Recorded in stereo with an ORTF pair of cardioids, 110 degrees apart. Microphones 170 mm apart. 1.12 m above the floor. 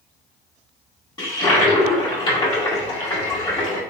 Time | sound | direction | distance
1.2 | a toilet flushing | 25° left | 1.8 m